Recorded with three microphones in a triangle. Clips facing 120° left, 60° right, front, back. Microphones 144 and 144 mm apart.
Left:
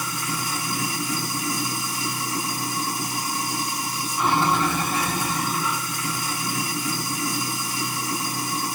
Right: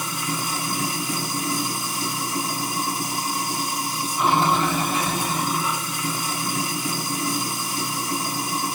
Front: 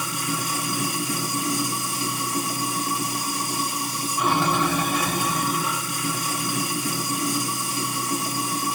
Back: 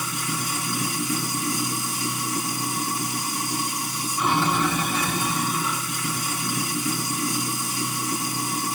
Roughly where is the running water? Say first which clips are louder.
Right 1 dB, front 2 dB; ahead.